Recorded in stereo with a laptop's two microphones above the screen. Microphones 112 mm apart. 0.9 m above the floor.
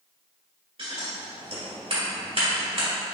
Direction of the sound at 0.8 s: 55° right (ahead or behind).